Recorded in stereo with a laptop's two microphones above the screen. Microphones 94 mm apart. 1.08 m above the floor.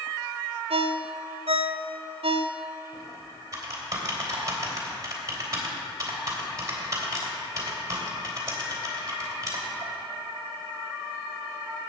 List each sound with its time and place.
0.7 s a ringtone: 80° right, 0.5 m
2.9 s typing on a keyboard: 35° right (ahead or behind), 3 m